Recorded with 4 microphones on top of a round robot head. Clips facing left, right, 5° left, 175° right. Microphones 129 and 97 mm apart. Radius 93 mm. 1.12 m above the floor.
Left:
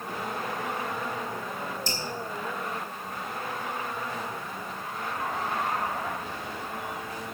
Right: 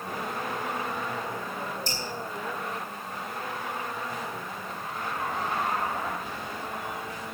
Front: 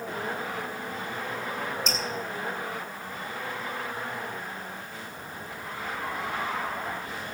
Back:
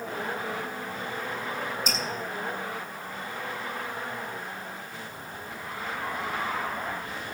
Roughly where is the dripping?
Left.